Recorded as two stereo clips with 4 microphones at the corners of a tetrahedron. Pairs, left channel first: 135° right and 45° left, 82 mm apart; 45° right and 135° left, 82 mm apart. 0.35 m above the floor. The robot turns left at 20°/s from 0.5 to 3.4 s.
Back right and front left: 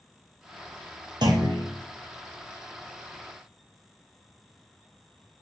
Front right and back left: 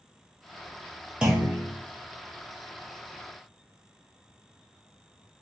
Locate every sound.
1.2 s a clunk: 55° left, 1.1 m; by 1.6 s 50° left, 1.1 m